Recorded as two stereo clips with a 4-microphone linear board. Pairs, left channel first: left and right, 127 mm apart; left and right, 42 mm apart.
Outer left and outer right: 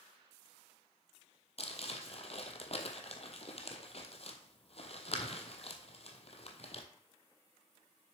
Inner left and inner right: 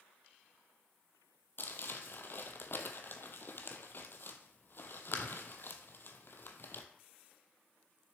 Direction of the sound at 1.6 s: 55° left (ahead or behind).